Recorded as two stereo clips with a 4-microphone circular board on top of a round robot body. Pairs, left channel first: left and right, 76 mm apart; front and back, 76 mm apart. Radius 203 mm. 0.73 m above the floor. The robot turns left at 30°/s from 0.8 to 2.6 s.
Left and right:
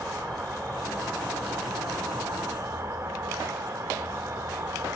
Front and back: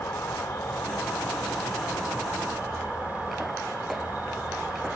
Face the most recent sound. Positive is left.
turn(degrees=-115)